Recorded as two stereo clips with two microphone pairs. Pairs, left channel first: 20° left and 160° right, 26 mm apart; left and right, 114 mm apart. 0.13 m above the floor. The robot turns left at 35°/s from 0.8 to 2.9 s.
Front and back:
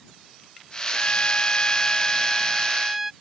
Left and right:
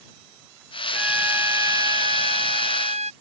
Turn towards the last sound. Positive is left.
turn(degrees=-75)